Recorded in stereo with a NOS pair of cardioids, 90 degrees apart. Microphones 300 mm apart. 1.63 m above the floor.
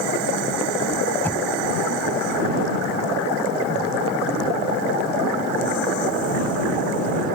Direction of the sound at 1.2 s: 5° left.